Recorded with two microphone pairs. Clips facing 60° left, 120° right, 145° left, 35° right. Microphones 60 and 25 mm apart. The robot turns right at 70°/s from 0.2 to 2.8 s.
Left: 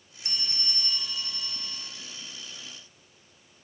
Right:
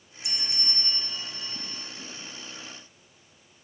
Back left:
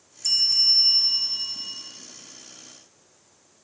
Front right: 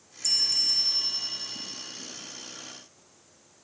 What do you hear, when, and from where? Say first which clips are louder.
0.2 s a bell: even, back left 5 dB; 85° left, 1.0 m; by 1.9 s 160° right, 1.0 m